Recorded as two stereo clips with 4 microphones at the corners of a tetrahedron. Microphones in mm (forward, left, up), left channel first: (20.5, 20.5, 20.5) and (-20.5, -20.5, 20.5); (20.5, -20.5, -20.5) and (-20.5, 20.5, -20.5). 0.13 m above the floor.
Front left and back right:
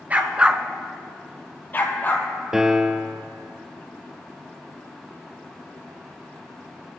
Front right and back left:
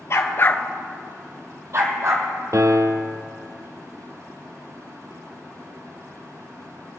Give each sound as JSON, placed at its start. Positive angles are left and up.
{"t": 0.1, "sound": "a dog barking", "azimuth_deg": -75, "distance_m": 1.0}
{"t": 2.5, "sound": "a piano", "azimuth_deg": 145, "distance_m": 0.7}